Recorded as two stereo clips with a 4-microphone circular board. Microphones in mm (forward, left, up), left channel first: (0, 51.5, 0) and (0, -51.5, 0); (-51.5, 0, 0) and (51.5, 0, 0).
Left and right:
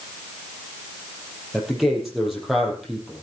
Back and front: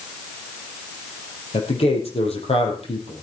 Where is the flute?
No flute in this recording.